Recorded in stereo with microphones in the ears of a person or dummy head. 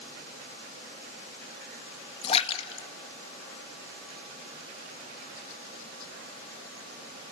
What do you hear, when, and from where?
2.2 s a splash: 35° left (ahead or behind), 1.1 m